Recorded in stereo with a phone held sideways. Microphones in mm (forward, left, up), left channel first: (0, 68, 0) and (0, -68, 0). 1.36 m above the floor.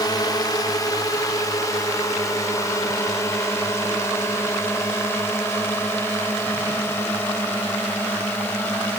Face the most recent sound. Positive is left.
turn(degrees=15)  # may be behind; listen again after turning